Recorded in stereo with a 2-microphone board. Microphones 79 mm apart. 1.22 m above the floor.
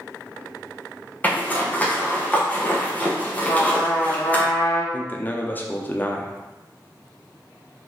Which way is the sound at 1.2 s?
20° left (ahead or behind).